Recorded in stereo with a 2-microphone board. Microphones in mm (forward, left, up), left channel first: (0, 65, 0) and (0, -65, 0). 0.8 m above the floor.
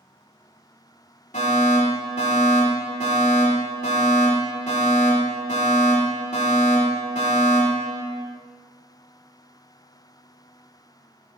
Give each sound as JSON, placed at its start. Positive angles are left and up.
{"t": 1.3, "sound": "a fire alarm", "side_deg": 65, "distance_m": 4.0}